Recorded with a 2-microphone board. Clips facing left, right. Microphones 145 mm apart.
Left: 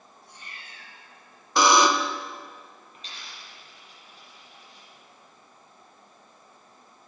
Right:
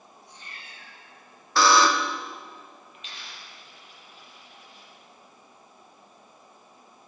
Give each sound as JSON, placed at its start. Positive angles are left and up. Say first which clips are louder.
{"t": 0.2, "sound": "a cat meowing", "louder": "left 1 dB", "side_deg": 55, "distance_m": 5.0}
{"t": 1.6, "sound": "a buzzer", "louder": "left 1 dB", "side_deg": 20, "distance_m": 0.6}
{"t": 2.9, "sound": "a dropped coin", "louder": "left 1 dB", "side_deg": 40, "distance_m": 7.0}